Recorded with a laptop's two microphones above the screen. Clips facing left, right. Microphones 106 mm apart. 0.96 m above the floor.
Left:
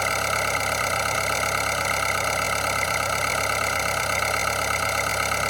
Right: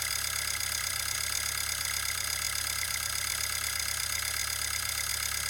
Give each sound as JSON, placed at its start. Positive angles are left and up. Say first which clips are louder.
{"t": 0.0, "sound": "an engine running", "louder": "left 17 dB", "side_deg": 75}